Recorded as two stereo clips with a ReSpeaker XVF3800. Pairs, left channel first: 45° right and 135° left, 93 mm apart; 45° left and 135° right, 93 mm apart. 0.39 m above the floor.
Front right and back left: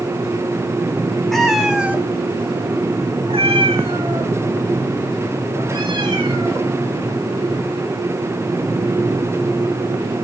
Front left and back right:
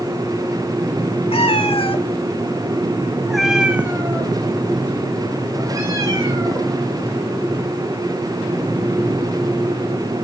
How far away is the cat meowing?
About 1.4 m.